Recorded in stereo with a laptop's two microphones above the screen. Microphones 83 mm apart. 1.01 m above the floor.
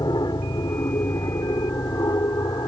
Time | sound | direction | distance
0.0 | an aircraft | 55° left (ahead or behind) | ?